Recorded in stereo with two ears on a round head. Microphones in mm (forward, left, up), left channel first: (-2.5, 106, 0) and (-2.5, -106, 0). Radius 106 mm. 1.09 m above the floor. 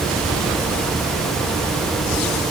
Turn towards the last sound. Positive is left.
No sound to turn to.